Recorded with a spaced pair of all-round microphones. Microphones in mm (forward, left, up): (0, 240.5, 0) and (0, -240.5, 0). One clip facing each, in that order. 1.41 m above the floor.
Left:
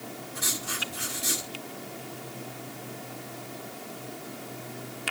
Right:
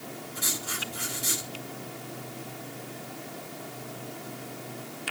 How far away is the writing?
About 4.5 m.